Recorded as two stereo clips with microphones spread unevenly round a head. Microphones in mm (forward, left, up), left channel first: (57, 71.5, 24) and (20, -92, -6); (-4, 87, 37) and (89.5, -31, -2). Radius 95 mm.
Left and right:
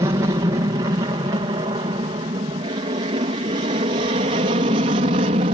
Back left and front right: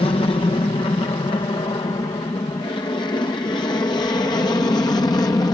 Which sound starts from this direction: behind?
An aircraft, at 0.0 s.